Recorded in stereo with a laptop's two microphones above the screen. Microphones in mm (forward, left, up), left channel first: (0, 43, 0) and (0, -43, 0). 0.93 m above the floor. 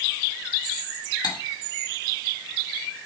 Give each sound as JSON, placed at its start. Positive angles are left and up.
{"t": 1.2, "sound": "cutlery clinking", "side_deg": 55, "distance_m": 1.7}